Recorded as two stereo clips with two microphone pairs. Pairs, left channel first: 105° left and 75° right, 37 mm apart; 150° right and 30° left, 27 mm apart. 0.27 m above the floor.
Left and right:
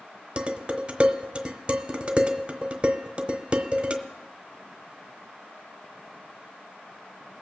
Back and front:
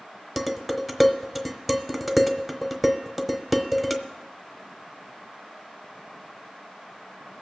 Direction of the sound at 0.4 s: 50° right.